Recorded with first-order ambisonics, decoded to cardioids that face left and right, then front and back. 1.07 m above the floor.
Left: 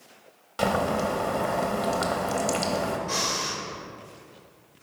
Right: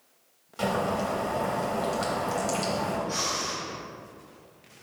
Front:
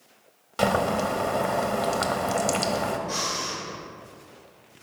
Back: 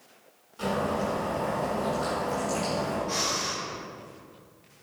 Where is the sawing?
No sawing in this recording.